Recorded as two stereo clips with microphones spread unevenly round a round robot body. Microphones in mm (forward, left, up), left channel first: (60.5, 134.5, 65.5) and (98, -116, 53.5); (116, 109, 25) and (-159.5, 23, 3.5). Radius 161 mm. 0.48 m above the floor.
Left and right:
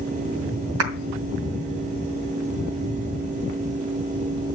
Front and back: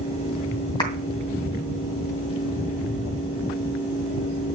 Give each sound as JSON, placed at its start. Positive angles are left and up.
{"t": 0.8, "sound": "a clap", "azimuth_deg": -60, "distance_m": 2.5}